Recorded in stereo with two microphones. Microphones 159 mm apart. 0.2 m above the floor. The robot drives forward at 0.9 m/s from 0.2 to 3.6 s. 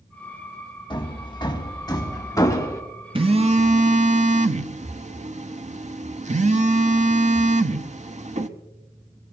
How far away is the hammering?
About 1.4 m.